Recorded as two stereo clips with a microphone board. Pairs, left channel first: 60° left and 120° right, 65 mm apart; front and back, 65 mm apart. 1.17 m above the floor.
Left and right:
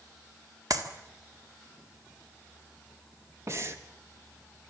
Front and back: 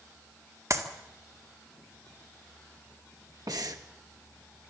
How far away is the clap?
About 1.9 m.